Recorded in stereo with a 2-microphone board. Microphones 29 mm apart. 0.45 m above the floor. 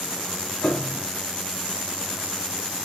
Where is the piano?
65° left (ahead or behind), 1.2 m.